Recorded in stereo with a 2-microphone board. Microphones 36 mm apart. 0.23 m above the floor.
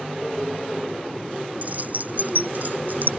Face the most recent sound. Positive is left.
turn(degrees=-55)  # may be behind; listen again after turning